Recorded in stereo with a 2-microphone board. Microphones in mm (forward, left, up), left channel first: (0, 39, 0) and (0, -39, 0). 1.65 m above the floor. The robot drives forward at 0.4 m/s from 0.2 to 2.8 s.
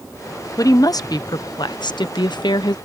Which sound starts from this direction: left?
A woman speaking, at 0.6 s.